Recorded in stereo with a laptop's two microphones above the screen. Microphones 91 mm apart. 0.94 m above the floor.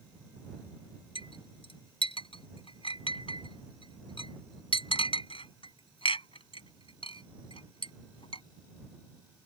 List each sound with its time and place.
1.1 s a clink: 85° left